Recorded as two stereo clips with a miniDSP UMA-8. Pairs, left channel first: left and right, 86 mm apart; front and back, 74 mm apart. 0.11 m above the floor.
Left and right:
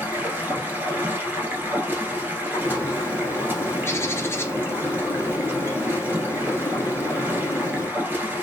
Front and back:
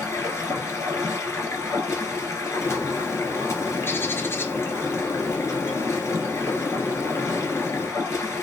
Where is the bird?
40° left, 0.6 m.